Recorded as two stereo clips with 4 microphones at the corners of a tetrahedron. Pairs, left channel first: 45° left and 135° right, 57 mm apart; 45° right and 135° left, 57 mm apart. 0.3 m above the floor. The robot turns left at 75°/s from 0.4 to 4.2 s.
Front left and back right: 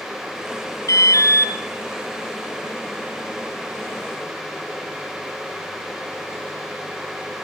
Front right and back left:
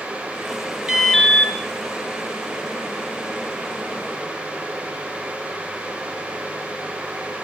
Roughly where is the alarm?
Ahead left.